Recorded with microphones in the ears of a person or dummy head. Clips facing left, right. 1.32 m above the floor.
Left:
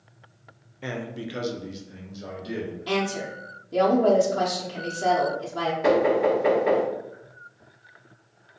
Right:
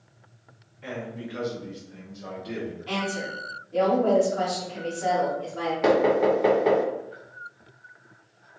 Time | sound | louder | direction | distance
0.8 | a man speaking | left 2 dB | 55° left (ahead or behind) | 0.5 m
2.9 | a woman speaking | left 6 dB | 60° left (ahead or behind) | 0.7 m
5.8 | knocking | even | 70° right (ahead or behind) | 1.1 m